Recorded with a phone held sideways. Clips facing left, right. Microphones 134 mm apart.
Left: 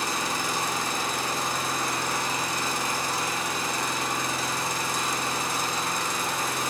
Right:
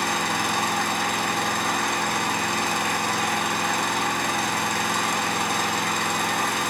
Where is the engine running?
70° right (ahead or behind), 5.5 m.